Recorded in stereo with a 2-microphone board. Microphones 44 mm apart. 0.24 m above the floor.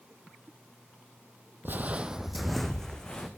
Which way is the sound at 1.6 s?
50° right (ahead or behind).